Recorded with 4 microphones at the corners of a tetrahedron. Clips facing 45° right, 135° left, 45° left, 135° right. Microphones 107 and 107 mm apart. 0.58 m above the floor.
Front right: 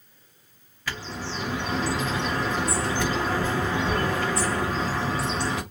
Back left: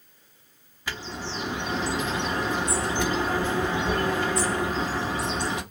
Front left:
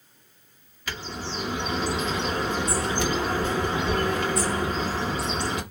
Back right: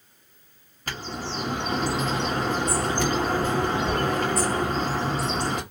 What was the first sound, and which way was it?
A bird, 160° right.